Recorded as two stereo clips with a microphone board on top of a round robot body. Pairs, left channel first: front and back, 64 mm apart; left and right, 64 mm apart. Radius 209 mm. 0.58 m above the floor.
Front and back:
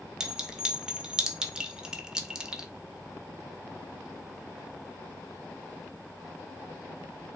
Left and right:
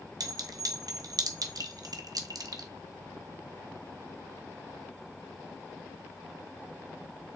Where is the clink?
105° right, 1.0 m.